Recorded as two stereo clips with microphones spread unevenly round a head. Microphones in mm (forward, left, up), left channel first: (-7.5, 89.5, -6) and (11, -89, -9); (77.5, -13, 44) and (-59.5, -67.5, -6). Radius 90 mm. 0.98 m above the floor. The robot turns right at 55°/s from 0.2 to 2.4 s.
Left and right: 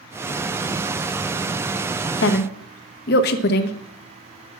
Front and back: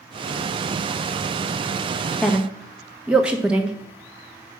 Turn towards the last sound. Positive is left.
turn(degrees=125)